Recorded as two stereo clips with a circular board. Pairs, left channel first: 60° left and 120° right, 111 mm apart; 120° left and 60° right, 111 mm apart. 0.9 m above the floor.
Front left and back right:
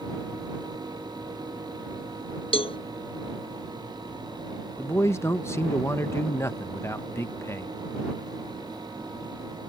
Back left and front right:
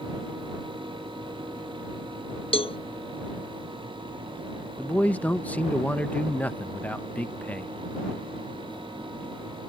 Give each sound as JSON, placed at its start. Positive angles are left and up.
{"t": 2.5, "sound": "a cowbell", "azimuth_deg": 90}
{"t": 4.8, "sound": "a man speaking", "azimuth_deg": 65}